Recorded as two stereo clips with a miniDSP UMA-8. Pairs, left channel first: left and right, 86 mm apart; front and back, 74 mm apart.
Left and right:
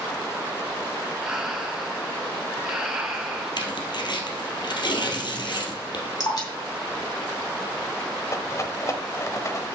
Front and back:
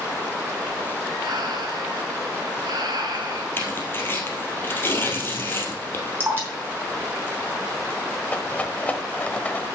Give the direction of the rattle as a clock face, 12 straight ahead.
10 o'clock.